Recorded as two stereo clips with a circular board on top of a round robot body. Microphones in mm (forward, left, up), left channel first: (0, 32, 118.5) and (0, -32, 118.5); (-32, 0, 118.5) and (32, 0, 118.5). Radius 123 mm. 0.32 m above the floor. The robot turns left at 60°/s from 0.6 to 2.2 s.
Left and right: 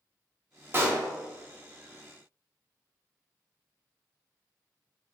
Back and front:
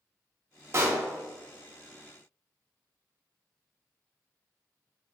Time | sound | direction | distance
0.7 | a pop | 40° right | 1.0 m